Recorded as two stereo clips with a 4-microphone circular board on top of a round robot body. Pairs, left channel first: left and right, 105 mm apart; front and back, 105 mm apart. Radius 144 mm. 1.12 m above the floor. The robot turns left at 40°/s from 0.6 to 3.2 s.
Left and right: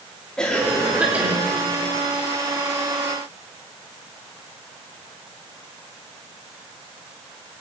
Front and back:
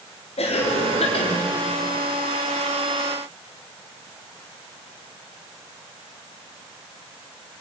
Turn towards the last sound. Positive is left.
turn(degrees=-95)